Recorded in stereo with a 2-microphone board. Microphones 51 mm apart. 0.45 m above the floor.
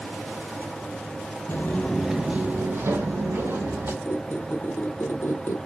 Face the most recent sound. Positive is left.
turn(degrees=60)  # may be behind; listen again after turning